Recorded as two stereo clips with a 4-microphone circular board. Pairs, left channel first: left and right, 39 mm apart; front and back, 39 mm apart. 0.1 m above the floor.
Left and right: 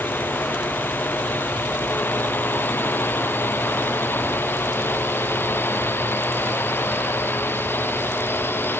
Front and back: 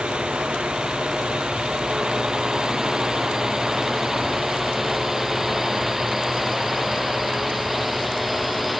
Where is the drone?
115° left; by 8.8 s 90° left.